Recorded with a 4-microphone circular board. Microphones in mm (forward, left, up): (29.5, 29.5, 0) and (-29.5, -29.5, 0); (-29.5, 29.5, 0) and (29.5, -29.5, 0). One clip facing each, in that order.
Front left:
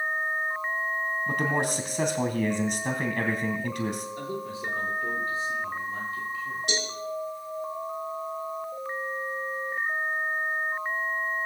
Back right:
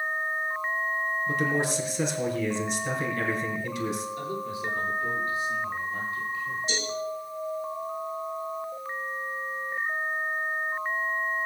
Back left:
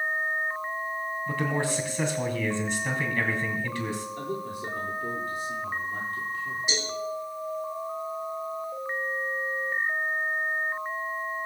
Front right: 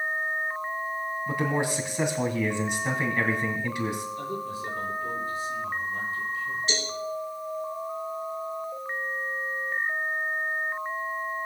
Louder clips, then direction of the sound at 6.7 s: Front left 1 dB, even; 60° left.